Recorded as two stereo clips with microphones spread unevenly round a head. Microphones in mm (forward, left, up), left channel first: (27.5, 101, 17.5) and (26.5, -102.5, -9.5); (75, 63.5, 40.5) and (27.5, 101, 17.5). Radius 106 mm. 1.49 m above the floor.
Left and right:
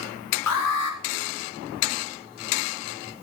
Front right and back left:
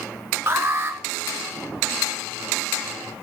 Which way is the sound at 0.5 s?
90° left.